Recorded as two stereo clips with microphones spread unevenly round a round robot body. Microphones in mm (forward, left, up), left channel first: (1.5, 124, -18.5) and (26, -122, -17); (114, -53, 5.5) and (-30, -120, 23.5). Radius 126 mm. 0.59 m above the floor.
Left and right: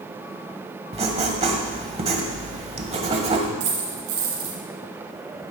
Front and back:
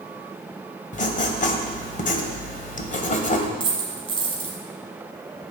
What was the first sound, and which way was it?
Writing, 20° right.